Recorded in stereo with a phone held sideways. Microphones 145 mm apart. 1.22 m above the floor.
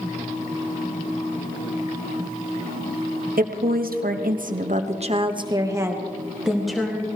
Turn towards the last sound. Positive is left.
turn(degrees=5)  # may be behind; listen again after turning